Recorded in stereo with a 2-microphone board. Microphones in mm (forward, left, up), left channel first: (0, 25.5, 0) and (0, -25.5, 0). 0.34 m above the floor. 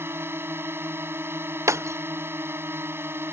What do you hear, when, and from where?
0.0 s a drone: 50° right (ahead or behind)
1.7 s breaking glass: 70° right (ahead or behind)